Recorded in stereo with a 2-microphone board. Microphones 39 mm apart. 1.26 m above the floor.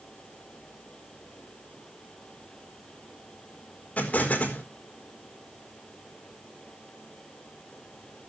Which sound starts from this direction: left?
An explosion, at 4.0 s.